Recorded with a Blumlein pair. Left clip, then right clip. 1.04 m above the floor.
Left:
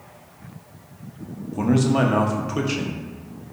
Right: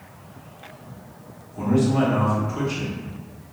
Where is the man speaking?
25° left, 0.7 m.